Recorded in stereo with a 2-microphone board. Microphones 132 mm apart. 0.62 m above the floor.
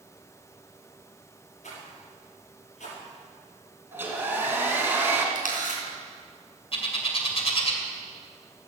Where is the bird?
45° left (ahead or behind), 2 m.